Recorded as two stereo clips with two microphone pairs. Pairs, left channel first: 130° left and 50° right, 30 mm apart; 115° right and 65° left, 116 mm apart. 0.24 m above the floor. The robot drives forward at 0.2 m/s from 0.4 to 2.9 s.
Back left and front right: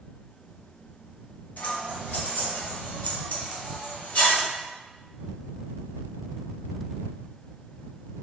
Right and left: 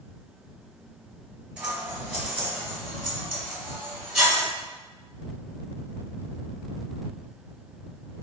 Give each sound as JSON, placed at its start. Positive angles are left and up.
{"t": 1.6, "sound": "scissors", "azimuth_deg": 140, "distance_m": 1.3}